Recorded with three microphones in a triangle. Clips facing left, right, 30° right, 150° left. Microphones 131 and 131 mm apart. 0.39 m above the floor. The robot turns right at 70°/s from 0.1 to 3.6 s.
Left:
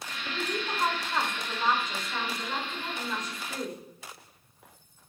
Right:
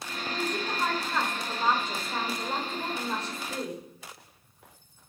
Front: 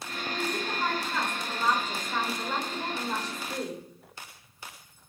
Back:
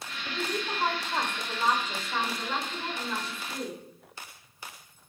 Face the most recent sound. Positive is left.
turn(degrees=-20)